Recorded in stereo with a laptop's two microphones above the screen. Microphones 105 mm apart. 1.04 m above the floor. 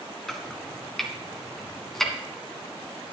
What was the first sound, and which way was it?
Chopping, 5° left (ahead or behind).